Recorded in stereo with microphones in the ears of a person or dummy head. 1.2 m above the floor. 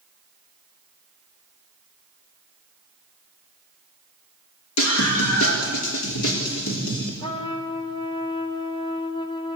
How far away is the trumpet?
About 3 m.